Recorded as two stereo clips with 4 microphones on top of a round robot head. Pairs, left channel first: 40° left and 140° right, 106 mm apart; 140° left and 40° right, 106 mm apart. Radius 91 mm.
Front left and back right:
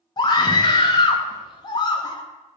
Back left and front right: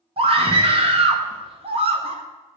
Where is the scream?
10° right, 1.5 m.